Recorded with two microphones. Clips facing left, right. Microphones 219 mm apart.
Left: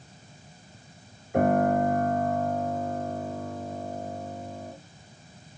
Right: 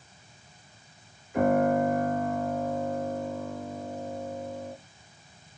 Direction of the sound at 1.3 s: 60° left (ahead or behind).